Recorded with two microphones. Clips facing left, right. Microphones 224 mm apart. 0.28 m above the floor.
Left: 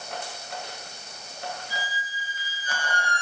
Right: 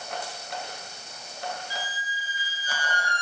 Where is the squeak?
50° left (ahead or behind), 1.5 m.